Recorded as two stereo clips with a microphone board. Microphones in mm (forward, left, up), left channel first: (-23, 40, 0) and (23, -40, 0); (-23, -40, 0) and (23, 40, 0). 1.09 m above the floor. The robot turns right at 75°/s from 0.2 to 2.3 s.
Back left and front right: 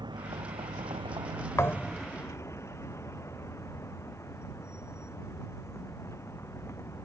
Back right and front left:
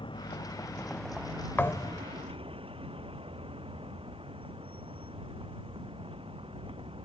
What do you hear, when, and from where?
0.0 s a vehicle: 95° right; by 7.0 s 60° left
1.6 s a thud: 175° left; by 2.1 s 150° right